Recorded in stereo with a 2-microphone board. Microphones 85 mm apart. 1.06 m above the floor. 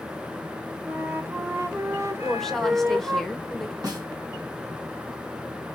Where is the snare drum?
50° right (ahead or behind), 1.9 m.